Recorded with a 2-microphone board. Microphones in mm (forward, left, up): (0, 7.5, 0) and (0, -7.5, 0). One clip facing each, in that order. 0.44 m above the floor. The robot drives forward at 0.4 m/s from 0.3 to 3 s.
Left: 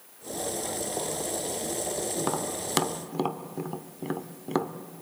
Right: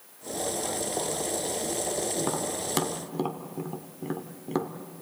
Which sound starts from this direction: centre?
Tapping, at 2.2 s.